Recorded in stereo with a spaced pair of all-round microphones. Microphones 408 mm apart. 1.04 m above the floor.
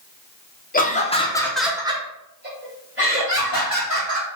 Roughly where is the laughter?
Left.